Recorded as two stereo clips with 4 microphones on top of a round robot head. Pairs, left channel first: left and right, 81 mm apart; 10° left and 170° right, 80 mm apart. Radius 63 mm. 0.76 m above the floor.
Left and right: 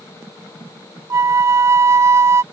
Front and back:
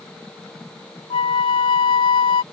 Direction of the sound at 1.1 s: 35° right.